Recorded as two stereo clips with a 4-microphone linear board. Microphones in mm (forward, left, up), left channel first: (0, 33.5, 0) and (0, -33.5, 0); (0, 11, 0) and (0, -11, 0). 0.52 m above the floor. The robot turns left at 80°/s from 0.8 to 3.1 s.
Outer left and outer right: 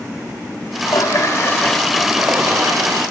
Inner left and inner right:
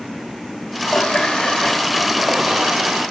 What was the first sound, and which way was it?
A running tap, 90° left.